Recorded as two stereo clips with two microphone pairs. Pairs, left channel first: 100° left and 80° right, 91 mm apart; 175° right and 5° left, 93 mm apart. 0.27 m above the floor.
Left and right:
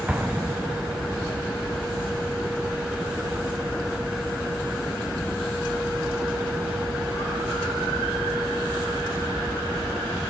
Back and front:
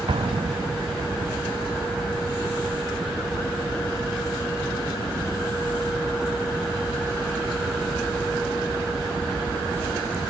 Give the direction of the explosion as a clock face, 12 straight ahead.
12 o'clock.